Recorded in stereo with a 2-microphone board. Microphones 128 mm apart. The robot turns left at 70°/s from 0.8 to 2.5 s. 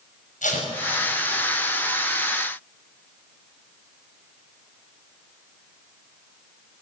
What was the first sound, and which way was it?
Tape being pulled, 90° left.